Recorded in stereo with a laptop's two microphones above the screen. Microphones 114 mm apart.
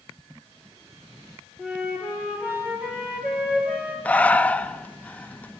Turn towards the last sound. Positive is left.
turn(degrees=10)  # may be behind; listen again after turning